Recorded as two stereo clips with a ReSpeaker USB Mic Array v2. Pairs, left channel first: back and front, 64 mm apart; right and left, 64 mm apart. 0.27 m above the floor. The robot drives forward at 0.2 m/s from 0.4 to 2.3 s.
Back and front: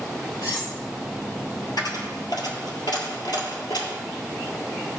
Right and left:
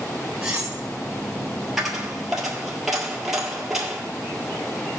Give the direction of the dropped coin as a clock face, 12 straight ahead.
6 o'clock.